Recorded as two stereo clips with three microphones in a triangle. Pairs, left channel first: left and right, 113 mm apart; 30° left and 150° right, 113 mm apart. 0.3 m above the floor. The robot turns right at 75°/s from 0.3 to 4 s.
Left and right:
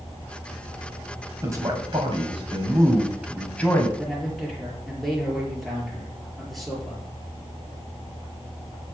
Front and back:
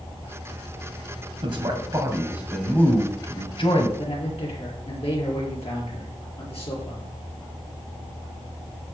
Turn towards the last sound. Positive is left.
turn(degrees=0)